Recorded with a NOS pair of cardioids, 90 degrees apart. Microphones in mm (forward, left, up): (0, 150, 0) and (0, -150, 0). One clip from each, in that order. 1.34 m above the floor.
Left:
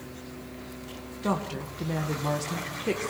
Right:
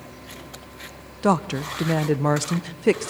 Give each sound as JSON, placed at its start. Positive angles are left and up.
{"t": 1.2, "sound": "a woman speaking", "azimuth_deg": -55, "distance_m": 1.0}